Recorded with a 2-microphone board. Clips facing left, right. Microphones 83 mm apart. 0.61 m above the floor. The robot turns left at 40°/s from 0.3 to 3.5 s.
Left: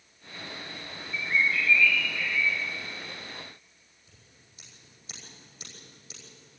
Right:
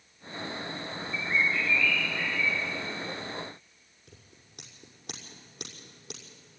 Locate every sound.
1.1 s a bird: 10° right, 3.5 m; by 2.6 s 70° right, 3.5 m
4.1 s scissors: 60° right (ahead or behind), 6 m